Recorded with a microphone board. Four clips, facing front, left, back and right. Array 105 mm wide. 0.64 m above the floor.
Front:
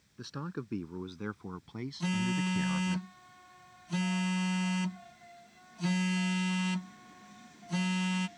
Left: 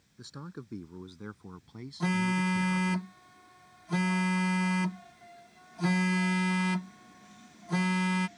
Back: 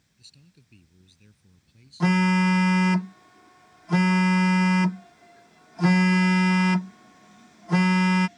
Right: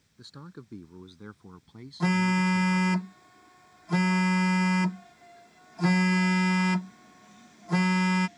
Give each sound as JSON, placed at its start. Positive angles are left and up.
{"t": 0.2, "sound": "a man speaking", "azimuth_deg": 5}
{"t": 2.0, "sound": "a phone buzzing", "azimuth_deg": -165}